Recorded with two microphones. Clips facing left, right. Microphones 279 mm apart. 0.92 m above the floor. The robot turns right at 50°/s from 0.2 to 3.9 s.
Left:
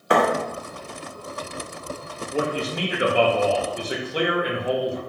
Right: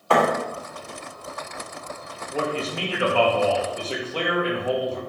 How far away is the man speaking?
About 0.6 m.